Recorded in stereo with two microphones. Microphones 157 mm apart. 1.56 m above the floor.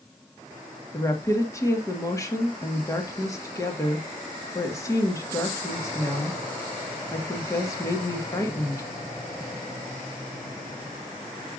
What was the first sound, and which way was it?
A woman speaking, 20° left (ahead or behind).